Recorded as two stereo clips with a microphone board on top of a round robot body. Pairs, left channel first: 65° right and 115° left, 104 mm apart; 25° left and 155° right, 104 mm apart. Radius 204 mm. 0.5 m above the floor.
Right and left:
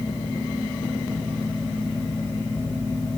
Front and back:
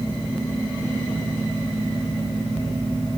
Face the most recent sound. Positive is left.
No sound to turn to.